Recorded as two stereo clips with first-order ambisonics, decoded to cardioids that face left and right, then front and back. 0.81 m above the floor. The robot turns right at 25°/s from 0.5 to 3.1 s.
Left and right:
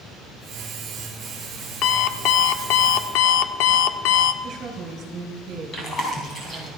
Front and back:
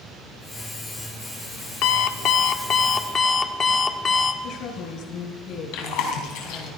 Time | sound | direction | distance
1.8 | an alarm clock | 40° left | 0.7 m
4.4 | a woman speaking | 35° right | 4.5 m
5.7 | chewing | 20° left | 4 m